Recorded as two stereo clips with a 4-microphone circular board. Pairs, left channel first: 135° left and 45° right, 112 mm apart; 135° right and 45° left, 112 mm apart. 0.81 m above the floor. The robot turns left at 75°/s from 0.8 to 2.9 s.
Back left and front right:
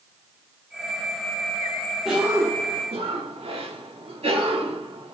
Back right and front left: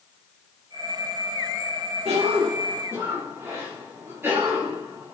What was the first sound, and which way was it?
A cough, 45° left.